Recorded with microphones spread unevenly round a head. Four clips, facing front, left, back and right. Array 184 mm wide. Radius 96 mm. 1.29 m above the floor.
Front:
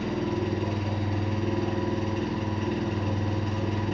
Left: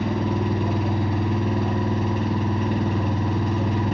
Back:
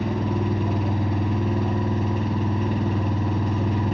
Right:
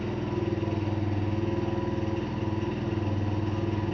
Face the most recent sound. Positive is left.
turn(degrees=120)